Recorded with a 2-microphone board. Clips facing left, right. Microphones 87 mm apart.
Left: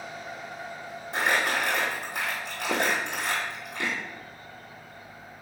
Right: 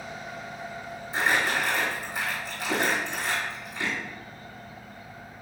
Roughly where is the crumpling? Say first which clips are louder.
Even; left.